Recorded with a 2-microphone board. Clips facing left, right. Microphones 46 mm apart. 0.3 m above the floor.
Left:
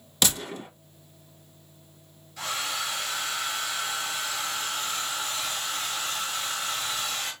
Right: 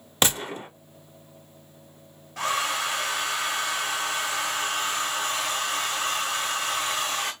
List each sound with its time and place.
0.2 s a gunshot: 35° right (ahead or behind), 0.9 m
2.4 s a hair dryer: 60° right (ahead or behind), 2.5 m